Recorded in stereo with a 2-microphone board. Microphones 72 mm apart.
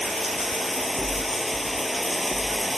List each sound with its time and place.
0.0 s running water: centre (ahead or behind)